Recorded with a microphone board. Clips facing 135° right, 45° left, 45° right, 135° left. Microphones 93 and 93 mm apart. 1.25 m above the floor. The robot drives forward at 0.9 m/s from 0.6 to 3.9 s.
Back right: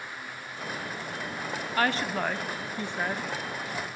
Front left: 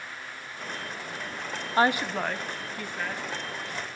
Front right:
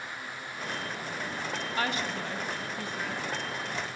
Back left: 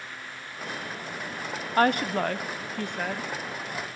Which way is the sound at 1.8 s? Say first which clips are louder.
Front left 3 dB, back left 11 dB; 100° left.